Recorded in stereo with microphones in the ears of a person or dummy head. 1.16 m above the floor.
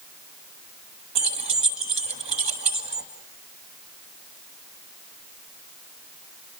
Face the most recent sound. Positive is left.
turn(degrees=-35)  # may be behind; listen again after turning